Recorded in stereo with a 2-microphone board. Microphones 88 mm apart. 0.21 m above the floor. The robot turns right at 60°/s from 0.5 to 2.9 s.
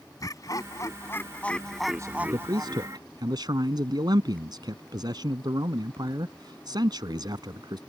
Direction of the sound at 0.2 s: 100° left.